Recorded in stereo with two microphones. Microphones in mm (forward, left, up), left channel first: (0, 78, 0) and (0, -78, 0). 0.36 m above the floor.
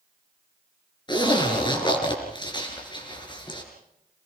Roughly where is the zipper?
Left.